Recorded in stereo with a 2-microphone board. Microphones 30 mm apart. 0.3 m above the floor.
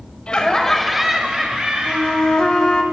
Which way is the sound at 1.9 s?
30° left (ahead or behind).